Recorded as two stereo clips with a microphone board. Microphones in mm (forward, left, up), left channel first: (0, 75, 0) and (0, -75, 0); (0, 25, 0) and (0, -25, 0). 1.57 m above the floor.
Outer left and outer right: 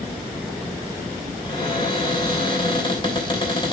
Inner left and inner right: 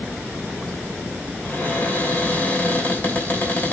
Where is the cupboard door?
30° left (ahead or behind), 2.5 m.